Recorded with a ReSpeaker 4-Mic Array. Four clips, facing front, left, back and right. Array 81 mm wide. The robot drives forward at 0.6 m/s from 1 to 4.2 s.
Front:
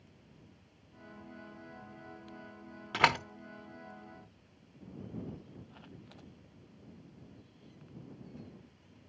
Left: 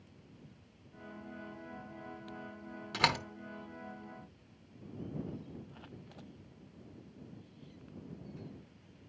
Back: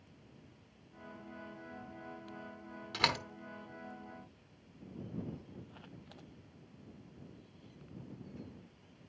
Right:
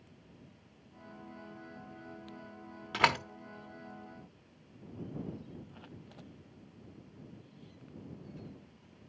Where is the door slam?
25° right, 0.8 m; by 3.2 s 30° right, 0.7 m.